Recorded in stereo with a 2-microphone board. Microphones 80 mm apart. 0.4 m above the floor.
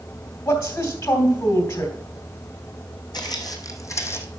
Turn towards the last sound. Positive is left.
turn(degrees=30)  # may be behind; listen again after turning